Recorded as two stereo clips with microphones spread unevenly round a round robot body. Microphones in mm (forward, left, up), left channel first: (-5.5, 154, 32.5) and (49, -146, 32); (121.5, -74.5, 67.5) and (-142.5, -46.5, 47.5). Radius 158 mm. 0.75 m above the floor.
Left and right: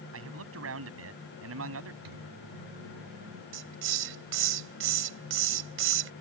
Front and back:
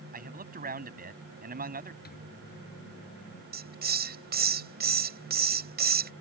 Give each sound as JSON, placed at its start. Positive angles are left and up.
{"t": 0.1, "sound": "a man speaking", "azimuth_deg": -130}
{"t": 2.0, "sound": "a microwave", "azimuth_deg": -60}
{"t": 3.5, "sound": "a hiss", "azimuth_deg": -130}